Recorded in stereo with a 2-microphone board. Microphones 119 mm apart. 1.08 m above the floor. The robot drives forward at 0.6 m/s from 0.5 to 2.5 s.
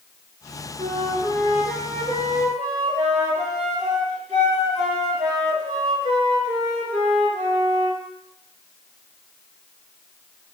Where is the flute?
70° right (ahead or behind), 4.5 m; by 8.0 s 60° right (ahead or behind), 5 m.